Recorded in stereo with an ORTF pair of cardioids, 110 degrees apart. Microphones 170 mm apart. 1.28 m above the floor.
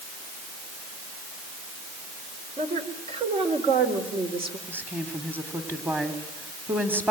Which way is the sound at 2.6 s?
40° right.